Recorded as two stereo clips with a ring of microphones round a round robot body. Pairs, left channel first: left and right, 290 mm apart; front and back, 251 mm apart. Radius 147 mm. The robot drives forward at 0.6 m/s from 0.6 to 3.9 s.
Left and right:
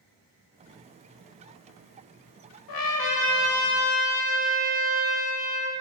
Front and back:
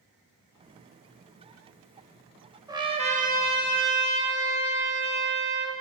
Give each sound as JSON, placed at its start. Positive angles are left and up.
{"t": 2.7, "sound": "a trumpet", "azimuth_deg": 105, "distance_m": 1.0}